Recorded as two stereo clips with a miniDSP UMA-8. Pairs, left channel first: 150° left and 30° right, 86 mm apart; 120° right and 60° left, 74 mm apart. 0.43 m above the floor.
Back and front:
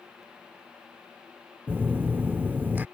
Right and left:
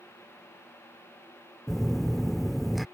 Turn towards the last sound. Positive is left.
turn(degrees=-25)